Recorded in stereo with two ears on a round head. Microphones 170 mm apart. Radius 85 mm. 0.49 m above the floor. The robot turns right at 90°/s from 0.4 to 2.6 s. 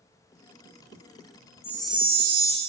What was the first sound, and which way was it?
A chime, 160° left.